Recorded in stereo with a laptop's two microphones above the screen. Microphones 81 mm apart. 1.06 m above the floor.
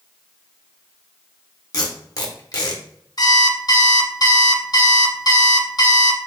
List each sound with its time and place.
1.7 s tape being pulled: 45° left (ahead or behind), 1.1 m
3.2 s an alarm clock: 50° left (ahead or behind), 0.8 m